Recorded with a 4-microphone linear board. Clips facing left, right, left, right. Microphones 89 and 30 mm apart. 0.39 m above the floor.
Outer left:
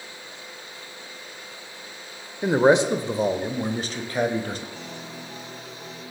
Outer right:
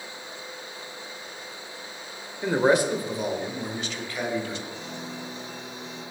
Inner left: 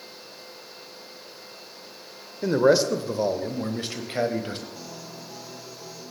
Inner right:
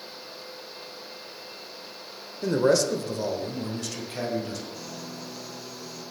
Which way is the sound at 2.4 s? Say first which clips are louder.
Outer left 3 dB, inner left 3 dB; 15° left (ahead or behind).